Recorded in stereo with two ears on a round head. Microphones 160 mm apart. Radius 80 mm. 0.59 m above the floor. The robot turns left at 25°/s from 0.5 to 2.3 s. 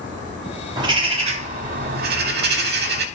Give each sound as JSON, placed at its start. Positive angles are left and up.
{"t": 0.8, "sound": "a bird", "azimuth_deg": -25, "distance_m": 0.9}